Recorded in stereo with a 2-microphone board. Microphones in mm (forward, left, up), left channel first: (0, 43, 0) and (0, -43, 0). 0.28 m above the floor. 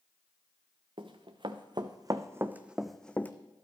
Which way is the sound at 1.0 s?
70° right (ahead or behind).